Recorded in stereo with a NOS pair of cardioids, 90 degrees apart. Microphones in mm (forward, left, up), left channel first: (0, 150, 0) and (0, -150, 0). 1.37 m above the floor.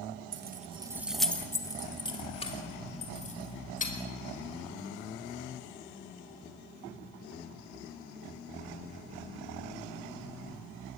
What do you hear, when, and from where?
0.3 s keys jangling: 40° right, 1.0 m; by 3.9 s 25° left, 4.5 m